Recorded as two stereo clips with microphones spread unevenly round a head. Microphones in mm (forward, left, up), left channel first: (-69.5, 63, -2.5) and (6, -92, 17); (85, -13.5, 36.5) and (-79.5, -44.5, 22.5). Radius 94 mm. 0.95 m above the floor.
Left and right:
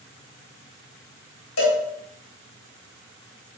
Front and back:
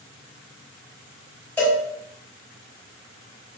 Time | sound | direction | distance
1.6 | a cowbell | 95° left | 4 m